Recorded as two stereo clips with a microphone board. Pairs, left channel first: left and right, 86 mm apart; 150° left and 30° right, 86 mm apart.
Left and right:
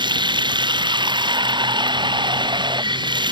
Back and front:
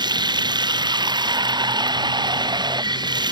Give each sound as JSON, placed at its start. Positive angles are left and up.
{"t": 0.0, "sound": "running water", "azimuth_deg": -65}